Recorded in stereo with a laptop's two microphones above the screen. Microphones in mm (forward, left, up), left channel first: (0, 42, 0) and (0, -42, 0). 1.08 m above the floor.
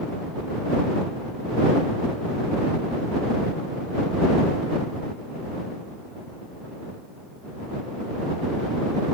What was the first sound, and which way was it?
Only background noise.